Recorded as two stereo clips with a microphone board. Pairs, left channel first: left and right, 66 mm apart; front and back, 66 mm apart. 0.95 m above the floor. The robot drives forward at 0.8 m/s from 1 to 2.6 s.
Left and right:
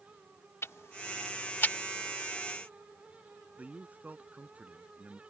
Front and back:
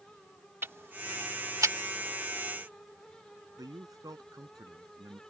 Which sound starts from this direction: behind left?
Ticking, at 0.6 s.